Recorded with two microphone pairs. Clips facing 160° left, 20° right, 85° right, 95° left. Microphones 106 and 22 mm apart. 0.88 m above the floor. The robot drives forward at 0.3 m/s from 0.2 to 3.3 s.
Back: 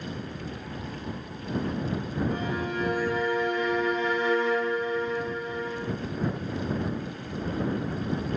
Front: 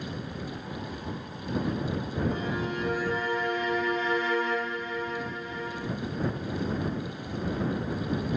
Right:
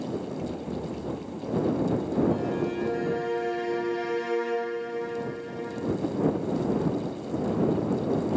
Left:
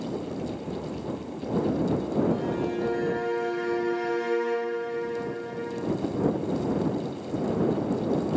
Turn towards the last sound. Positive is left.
turn(degrees=150)